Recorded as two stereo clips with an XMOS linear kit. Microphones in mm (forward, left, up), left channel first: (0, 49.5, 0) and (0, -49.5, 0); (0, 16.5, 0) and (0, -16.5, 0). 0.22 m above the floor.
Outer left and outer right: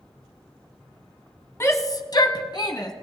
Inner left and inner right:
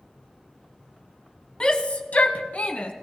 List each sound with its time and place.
1.6 s a shout: 30° left (ahead or behind), 1.4 m; by 2.9 s 40° left (ahead or behind), 1.9 m